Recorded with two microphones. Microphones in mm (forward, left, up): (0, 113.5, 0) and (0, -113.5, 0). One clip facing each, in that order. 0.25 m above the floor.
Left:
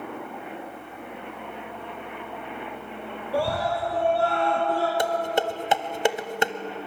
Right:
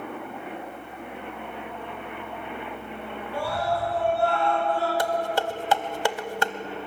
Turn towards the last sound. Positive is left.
turn(degrees=20)  # may be behind; listen again after turning